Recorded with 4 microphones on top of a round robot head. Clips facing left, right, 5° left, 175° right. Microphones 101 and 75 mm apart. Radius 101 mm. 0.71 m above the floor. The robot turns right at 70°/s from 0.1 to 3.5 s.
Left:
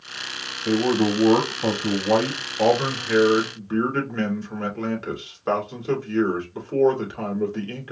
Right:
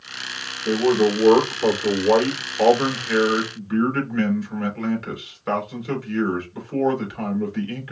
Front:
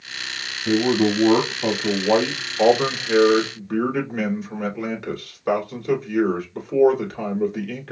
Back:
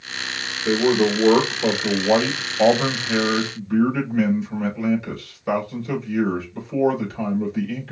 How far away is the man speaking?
About 2.5 m.